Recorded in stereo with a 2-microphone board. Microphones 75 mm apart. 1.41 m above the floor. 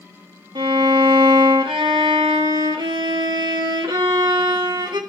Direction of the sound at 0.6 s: 75° right (ahead or behind).